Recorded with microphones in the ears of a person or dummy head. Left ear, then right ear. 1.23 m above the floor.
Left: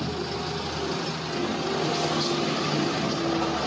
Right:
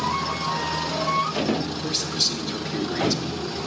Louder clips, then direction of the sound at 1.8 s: Right 4 dB; 25° right (ahead or behind).